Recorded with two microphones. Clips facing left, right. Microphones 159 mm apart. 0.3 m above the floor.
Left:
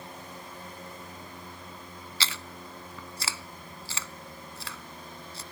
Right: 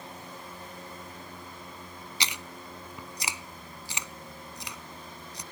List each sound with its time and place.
2.2 s chewing: 15° right (ahead or behind)